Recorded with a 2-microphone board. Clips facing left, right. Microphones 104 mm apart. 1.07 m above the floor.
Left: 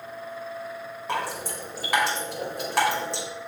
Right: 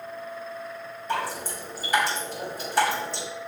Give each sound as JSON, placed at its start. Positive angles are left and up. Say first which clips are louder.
{"t": 1.1, "sound": "dripping", "louder": "right 1 dB", "side_deg": 85, "distance_m": 4.0}